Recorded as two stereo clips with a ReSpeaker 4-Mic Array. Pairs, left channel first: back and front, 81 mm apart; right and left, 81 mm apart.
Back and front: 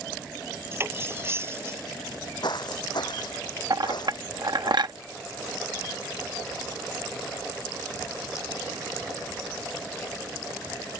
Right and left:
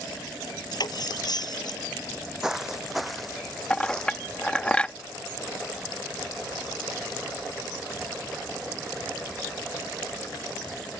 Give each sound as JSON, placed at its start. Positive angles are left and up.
{"t": 0.7, "sound": "cutlery clinking", "azimuth_deg": -60}
{"t": 2.0, "sound": "footsteps", "azimuth_deg": 170}
{"t": 3.7, "sound": "a clink", "azimuth_deg": -15}